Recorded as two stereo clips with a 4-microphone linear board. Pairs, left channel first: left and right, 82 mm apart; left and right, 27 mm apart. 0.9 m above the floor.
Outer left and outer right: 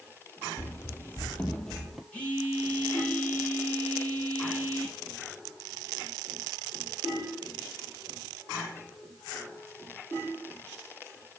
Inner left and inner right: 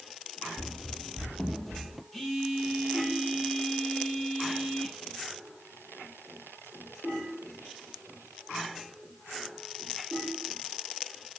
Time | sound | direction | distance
0.6 | running footsteps | 35° left (ahead or behind) | 1.3 m
2.1 | a phone buzzing | 15° left (ahead or behind) | 5 m